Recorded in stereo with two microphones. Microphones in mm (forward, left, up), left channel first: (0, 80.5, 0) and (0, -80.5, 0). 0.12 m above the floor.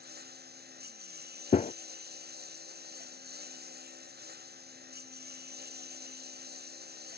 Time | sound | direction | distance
0.0 | a lawn mower | 85° right | ?
1.5 | a gunshot | 50° left (ahead or behind) | ?